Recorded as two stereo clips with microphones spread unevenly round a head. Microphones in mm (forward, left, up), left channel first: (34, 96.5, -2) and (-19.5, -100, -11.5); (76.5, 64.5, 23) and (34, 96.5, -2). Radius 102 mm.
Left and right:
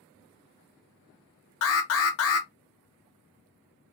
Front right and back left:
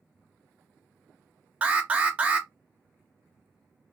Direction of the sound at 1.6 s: 90° left.